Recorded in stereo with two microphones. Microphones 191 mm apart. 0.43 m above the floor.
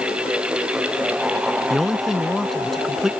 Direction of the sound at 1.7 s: Centre (ahead or behind).